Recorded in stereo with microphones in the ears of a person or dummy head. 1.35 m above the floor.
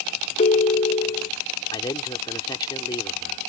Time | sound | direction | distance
0.4 | a ringtone | 30° left (ahead or behind) | ?
1.7 | a man speaking | 15° left (ahead or behind) | ?